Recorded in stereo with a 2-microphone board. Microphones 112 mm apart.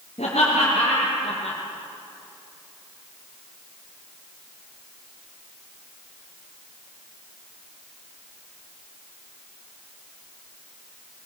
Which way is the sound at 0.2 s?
70° left (ahead or behind).